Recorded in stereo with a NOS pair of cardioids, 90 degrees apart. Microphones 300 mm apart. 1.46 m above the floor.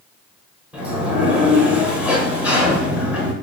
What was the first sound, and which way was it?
A sliding door, 5° right.